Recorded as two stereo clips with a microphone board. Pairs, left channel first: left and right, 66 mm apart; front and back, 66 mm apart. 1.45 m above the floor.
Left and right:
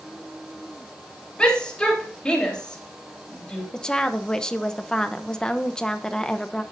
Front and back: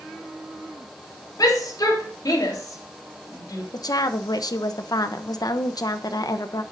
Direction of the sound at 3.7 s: 10° left.